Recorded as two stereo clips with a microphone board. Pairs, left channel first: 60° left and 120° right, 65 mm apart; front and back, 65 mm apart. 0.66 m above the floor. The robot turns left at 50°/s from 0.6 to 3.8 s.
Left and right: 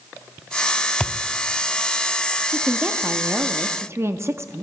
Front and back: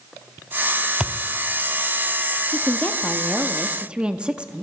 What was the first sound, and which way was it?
A thud, 115° left.